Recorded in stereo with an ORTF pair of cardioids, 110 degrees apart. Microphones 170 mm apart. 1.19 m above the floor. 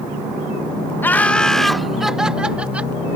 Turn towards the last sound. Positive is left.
turn(degrees=-10)